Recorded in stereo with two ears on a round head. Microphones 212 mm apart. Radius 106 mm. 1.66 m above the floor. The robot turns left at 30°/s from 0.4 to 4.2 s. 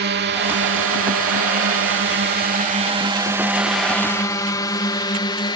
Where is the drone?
45° right (ahead or behind); by 5.6 s 20° left (ahead or behind).